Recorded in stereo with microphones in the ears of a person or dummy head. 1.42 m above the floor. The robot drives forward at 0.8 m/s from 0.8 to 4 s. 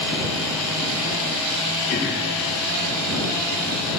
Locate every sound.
1.9 s throat clearing: 35° left (ahead or behind), 1.2 m; by 2.3 s 50° left (ahead or behind), 0.9 m